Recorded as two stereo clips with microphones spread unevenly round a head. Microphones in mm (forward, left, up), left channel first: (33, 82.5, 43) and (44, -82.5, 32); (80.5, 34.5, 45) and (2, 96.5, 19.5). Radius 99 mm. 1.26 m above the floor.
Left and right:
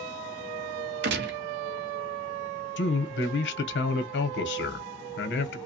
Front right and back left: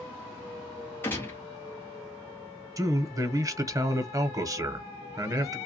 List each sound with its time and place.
1.0 s a gunshot: 115° right, 0.5 m
2.8 s a man speaking: 90° left, 0.8 m